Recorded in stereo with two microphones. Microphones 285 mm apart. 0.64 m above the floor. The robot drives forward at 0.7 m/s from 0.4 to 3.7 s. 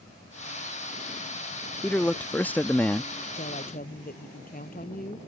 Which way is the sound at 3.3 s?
30° left (ahead or behind).